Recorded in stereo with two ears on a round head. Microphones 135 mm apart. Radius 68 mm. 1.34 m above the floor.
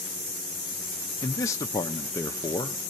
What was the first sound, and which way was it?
A man speaking, 20° left (ahead or behind).